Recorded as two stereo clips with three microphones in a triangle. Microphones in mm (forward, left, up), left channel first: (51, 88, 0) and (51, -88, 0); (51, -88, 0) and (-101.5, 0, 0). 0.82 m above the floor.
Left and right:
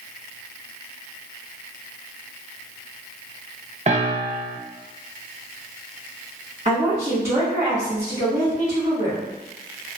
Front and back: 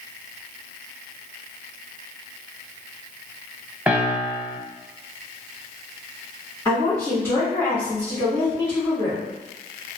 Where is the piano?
130° right, 0.5 m.